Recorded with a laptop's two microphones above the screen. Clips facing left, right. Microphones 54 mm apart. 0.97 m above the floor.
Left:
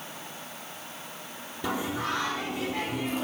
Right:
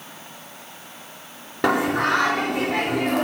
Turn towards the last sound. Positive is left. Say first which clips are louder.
# right 10 dB
turn(degrees=-70)  # may be behind; listen again after turning